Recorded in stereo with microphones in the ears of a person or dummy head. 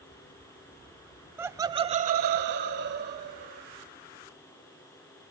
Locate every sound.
1.4 s laughter: 10° right (ahead or behind), 1.0 m; by 3.6 s 50° right (ahead or behind), 1.7 m